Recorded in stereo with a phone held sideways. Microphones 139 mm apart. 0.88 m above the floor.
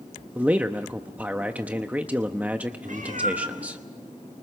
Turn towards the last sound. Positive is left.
turn(degrees=-70)  # may be behind; listen again after turning